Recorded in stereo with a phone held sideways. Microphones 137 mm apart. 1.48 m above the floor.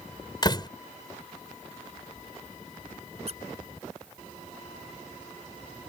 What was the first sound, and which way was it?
A door slam, 30° left (ahead or behind).